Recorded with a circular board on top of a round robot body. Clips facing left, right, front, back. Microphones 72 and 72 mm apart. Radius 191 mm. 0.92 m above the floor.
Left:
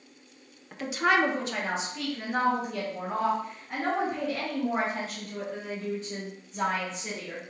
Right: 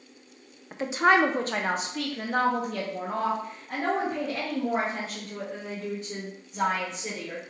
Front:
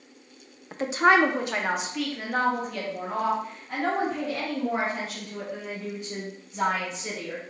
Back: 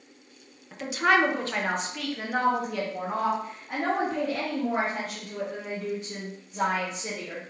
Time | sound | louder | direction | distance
0.7 | a woman speaking | right 3 dB, front 3 dB | 30° right | 0.8 m